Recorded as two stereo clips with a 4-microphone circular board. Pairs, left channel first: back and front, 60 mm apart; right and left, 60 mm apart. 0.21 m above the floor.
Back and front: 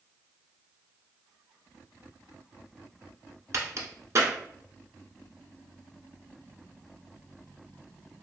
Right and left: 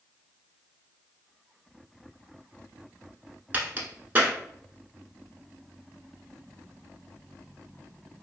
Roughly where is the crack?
Ahead left.